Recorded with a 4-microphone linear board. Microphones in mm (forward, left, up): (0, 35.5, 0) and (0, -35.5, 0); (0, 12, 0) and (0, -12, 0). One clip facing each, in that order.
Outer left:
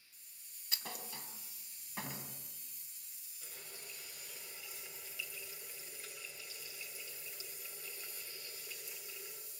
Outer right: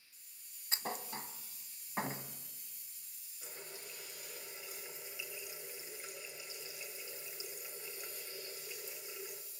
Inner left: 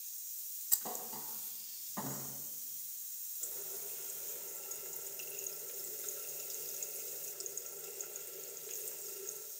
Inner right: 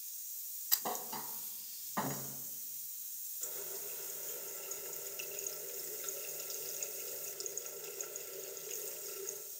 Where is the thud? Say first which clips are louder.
Outer right 6 dB, inner right 4 dB; 30° right (ahead or behind), 1.9 m.